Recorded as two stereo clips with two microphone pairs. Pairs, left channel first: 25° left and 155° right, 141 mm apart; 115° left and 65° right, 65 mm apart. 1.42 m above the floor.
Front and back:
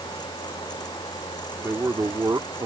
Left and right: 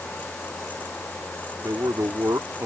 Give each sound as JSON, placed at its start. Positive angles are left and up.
{"t": 1.6, "sound": "a man speaking", "azimuth_deg": -85}